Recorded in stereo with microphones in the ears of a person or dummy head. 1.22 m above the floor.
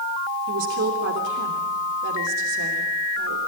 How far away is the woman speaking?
About 3 m.